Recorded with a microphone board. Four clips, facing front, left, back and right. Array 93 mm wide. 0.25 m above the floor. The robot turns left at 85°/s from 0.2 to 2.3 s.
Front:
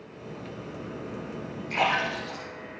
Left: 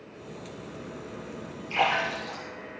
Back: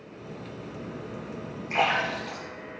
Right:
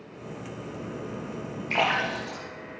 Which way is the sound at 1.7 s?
105° right.